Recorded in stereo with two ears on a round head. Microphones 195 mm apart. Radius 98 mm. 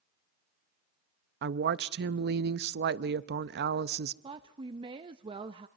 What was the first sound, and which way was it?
A woman speaking, 50° right (ahead or behind).